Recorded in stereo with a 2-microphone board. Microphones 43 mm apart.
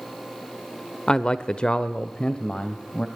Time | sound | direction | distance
1.1 | a man speaking | 20° left (ahead or behind) | 0.8 m